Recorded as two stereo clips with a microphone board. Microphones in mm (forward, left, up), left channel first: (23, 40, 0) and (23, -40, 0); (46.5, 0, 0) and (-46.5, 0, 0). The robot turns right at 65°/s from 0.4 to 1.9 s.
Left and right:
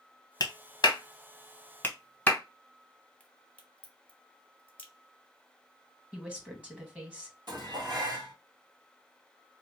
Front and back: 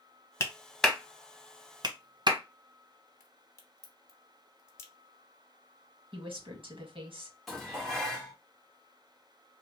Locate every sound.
0.4 s a clap: 60° left, 0.7 m; by 2.4 s 155° left, 0.7 m
3.2 s a crack: 30° left, 0.9 m
6.1 s a woman speaking: 165° right, 1.4 m
7.5 s dishes clattering: 85° right, 1.4 m